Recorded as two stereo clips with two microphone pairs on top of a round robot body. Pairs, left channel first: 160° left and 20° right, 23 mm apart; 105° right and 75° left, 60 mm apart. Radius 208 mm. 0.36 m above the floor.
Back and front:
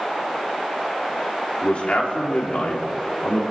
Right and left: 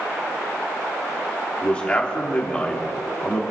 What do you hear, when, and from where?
1.6 s a man speaking: 175° right, 3 m